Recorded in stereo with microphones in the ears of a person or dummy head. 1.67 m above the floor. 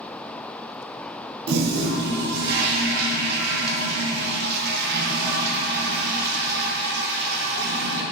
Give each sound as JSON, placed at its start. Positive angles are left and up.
{"t": 1.5, "sound": "a toilet flushing", "side_deg": -60, "distance_m": 0.8}